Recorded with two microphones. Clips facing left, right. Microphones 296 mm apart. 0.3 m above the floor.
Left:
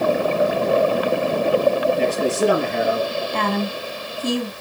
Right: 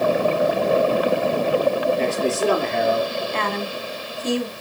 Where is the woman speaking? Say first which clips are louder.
Left 3 dB; 45° left (ahead or behind), 2 m.